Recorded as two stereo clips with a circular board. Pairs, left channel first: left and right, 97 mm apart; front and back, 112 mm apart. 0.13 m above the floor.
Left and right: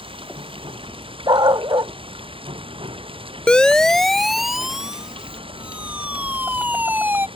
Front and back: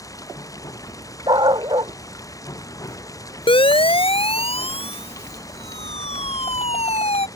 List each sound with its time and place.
0.0 s running water: 60° right
1.3 s a dog barking: 130° right
3.5 s a siren: 10° left; by 7.3 s 20° right